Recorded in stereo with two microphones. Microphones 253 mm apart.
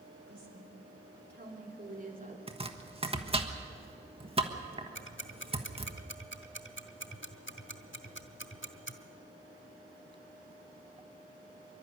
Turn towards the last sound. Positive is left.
turn(degrees=50)  # may be behind; listen again after turning